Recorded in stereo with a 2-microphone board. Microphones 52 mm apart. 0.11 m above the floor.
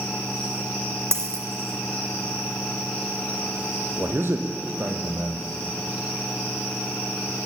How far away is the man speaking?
About 3 m.